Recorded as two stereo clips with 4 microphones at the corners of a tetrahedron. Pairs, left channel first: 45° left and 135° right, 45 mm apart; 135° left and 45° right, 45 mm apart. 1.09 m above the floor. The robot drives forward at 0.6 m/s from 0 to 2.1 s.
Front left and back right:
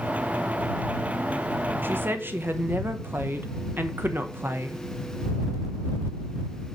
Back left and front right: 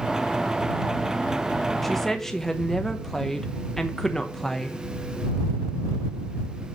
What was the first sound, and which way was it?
A woman speaking, 135° right.